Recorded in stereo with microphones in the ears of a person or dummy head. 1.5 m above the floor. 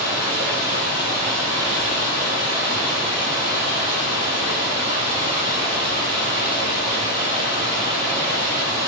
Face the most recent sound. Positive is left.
turn(degrees=-15)  # may be behind; listen again after turning